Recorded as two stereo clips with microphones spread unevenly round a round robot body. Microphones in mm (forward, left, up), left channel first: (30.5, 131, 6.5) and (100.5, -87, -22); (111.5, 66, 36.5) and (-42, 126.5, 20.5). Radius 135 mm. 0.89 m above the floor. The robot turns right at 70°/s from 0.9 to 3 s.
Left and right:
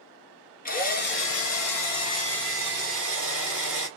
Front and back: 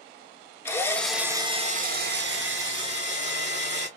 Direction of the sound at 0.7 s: 55° left.